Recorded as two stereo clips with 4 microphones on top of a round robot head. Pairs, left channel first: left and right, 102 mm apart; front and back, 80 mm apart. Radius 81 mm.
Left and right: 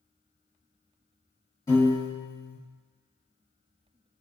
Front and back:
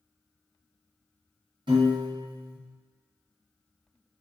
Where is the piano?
155° left, 1.4 m.